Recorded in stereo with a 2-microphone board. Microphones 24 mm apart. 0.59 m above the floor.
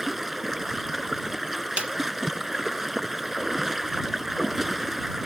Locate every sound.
0.0 s running water: 5° right (ahead or behind)
1.8 s a snare drum: 55° right (ahead or behind)